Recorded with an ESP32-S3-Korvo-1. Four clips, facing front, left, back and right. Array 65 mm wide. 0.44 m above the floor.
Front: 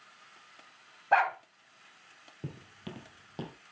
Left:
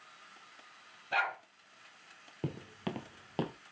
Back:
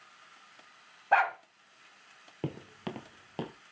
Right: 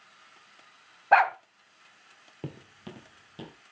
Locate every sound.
1.1 s a dog barking: 90° right, 1.2 m
2.4 s footsteps: straight behind, 0.7 m; by 3.5 s 115° left, 1.3 m